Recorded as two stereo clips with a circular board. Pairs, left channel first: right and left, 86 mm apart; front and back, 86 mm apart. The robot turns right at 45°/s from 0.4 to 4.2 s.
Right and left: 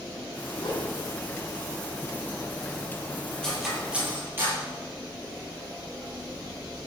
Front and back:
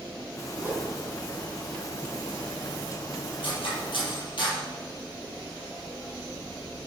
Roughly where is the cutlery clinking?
Ahead.